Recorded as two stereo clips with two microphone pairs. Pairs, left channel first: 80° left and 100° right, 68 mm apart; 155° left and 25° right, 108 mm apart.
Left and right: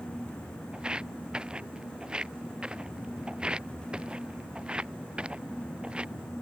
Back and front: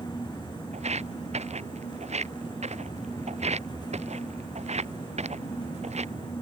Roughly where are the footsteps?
Ahead right.